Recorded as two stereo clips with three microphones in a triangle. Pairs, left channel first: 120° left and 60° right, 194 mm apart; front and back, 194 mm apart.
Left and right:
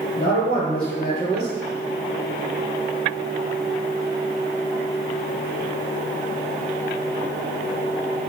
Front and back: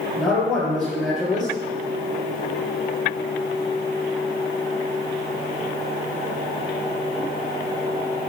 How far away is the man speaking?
About 1.5 m.